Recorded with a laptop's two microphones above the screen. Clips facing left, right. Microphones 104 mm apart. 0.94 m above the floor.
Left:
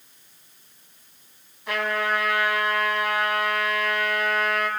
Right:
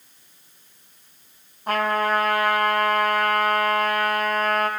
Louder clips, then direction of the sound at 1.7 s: Right 4 dB; 45° right (ahead or behind).